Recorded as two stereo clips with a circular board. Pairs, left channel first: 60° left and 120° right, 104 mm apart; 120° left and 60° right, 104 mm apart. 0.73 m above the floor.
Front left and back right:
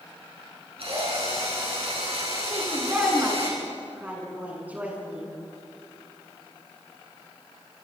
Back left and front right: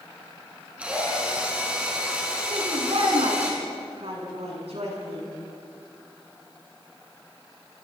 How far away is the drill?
About 7.5 m.